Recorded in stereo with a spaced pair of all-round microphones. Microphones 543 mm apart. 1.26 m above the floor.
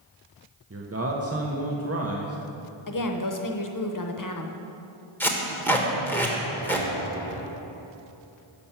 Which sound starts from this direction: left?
A woman speaking, at 2.9 s.